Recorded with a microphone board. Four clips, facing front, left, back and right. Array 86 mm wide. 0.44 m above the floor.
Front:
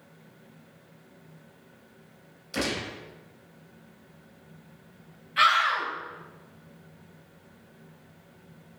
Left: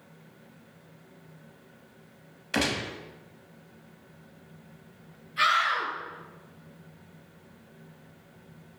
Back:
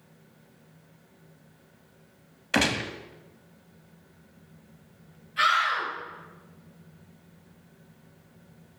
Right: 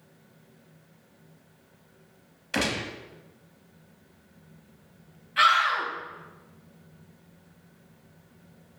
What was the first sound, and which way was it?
A gunshot, straight behind.